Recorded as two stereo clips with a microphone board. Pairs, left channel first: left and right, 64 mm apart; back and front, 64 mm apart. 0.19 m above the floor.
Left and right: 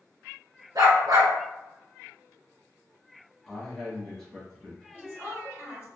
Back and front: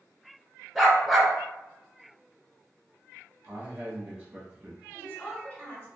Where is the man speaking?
20° left, 1.2 m.